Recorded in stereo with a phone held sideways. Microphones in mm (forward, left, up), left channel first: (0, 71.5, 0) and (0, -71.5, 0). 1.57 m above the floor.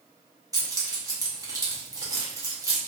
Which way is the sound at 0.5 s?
25° right (ahead or behind).